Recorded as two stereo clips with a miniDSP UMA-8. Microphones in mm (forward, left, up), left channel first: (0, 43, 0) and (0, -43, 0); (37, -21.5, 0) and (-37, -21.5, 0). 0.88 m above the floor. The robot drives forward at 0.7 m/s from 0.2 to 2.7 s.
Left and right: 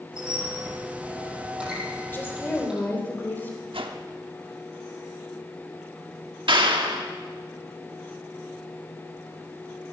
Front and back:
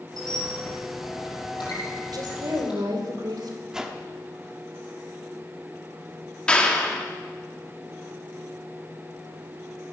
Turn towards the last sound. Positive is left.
turn(degrees=-75)